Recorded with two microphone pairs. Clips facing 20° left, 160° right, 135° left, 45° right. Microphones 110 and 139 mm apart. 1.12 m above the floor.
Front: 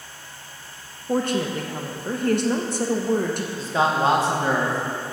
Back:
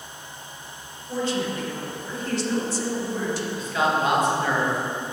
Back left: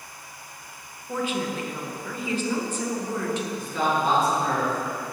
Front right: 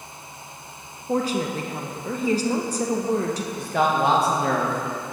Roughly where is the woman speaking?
Ahead.